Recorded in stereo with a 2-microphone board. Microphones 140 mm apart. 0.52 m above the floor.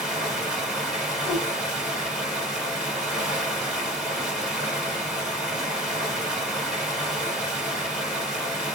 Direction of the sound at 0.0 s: 5° right (ahead or behind).